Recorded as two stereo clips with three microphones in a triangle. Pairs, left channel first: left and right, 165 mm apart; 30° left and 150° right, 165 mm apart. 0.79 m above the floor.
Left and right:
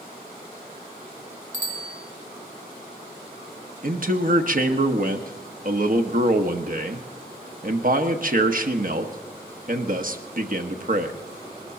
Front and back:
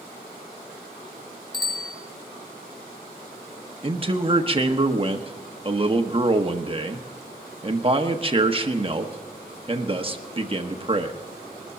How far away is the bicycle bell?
About 3.5 m.